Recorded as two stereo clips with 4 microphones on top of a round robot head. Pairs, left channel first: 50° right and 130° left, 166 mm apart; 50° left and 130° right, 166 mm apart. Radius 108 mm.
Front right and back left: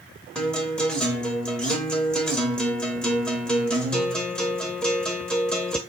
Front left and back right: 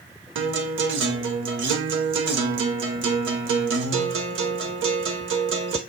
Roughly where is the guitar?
Behind right.